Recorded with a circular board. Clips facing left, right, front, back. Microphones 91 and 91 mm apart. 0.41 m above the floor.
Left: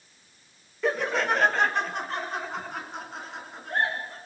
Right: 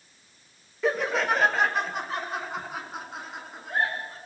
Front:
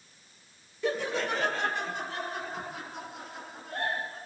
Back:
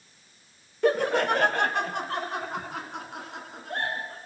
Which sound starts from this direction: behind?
Laughter, at 0.8 s.